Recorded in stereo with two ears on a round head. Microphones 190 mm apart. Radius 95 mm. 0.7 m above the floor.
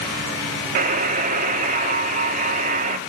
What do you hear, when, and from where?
0.8 s a buzzer: 35° right (ahead or behind), 1.0 m